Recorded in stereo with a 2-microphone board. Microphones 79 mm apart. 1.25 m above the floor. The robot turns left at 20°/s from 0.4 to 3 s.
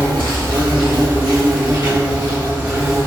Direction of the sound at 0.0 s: 90° right.